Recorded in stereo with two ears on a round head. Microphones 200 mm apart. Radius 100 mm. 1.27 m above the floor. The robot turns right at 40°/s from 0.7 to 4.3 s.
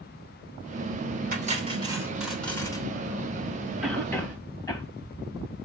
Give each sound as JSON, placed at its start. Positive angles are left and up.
{"t": 1.3, "sound": "cutlery clinking", "azimuth_deg": -40, "distance_m": 3.0}
{"t": 3.8, "sound": "a cough", "side_deg": -5, "distance_m": 1.5}